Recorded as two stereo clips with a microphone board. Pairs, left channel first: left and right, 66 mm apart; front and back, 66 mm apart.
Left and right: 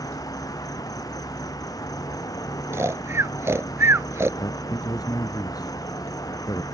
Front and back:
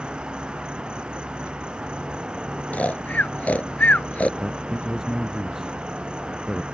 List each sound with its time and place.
0.0 s an insect: 105° left
2.7 s snoring: 60° right
4.4 s a man speaking: 95° left